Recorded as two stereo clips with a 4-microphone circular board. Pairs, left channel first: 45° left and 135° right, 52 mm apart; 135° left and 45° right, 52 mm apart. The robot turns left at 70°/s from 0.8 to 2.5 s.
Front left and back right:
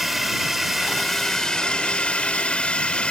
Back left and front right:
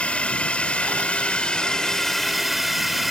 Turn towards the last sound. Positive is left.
turn(degrees=40)